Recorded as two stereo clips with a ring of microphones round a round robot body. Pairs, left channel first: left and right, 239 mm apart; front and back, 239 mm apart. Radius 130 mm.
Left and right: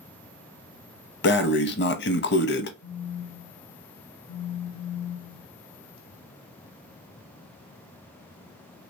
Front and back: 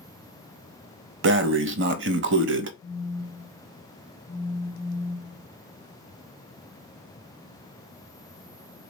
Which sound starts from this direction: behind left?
Breathing, at 1.2 s.